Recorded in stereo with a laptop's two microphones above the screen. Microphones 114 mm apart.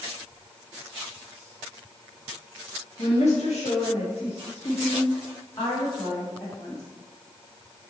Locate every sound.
3.0 s a woman speaking: 85° left, 1.2 m; by 6.8 s 25° left (ahead or behind), 2 m